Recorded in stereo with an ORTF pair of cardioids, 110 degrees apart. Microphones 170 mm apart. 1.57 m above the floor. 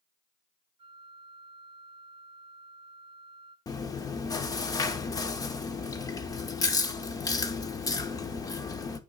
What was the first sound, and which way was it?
A flute, 30° right.